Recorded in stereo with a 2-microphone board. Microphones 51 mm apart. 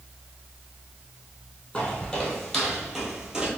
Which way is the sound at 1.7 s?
15° left (ahead or behind).